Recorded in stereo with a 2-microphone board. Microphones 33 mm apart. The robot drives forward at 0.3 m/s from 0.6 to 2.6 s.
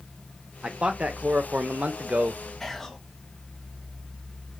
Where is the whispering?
15° left (ahead or behind), 0.8 m.